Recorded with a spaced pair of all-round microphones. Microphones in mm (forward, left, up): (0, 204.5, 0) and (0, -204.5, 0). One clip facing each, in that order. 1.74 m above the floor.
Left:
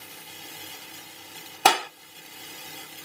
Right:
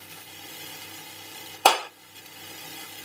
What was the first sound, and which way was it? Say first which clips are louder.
A clap: right 1 dB; 35° left (ahead or behind).